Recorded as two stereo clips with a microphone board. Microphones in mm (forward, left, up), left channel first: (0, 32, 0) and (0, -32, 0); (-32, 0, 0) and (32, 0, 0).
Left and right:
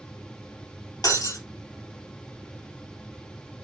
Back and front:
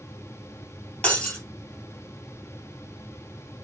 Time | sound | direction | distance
1.0 | breaking glass | 100° left | 2.5 m